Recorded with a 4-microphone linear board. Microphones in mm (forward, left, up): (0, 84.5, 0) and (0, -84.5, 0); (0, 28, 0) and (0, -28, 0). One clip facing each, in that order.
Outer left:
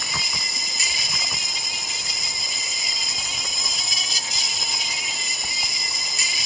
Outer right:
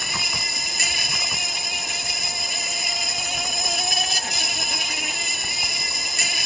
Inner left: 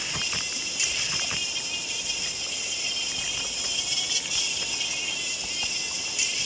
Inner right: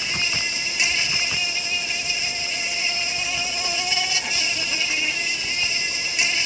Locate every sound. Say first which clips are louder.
0.0 s an insect: outer right 1 dB, inner right 7 dB; 60° right (ahead or behind)